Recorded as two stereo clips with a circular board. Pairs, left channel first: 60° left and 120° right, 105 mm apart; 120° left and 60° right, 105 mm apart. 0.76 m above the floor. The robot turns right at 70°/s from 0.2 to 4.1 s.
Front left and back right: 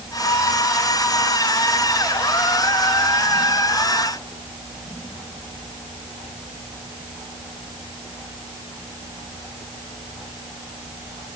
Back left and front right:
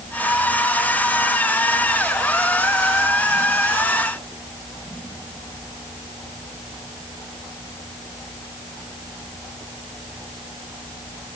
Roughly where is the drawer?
No drawer in this recording.